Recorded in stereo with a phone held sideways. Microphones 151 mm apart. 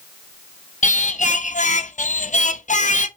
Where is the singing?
55° left (ahead or behind), 0.9 m.